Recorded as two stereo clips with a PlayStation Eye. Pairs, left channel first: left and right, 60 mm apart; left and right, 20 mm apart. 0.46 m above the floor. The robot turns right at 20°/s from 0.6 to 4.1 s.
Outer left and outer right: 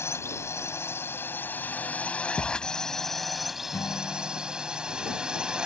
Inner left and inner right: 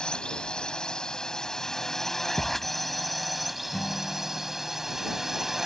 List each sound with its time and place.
0.0 s a drone: 125° left; by 5.7 s 165° right
2.4 s a thud: 70° left (ahead or behind)
3.7 s a guitar: 60° left (ahead or behind); by 5.0 s 70° left (ahead or behind)